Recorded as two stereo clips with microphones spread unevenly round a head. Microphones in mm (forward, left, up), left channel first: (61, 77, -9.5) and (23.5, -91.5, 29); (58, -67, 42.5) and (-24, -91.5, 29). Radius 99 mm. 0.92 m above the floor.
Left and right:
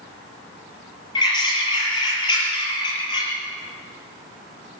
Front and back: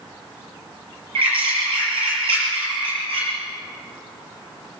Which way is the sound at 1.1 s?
150° left.